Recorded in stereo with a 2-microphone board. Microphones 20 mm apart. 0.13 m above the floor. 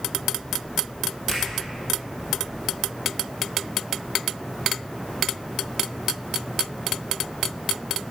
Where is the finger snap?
15° right (ahead or behind), 3 m.